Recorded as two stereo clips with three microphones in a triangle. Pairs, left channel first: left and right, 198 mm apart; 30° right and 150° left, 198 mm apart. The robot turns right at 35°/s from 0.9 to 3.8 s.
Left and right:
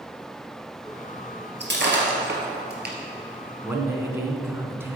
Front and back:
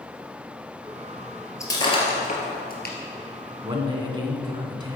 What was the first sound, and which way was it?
Breaking glass, 105° right.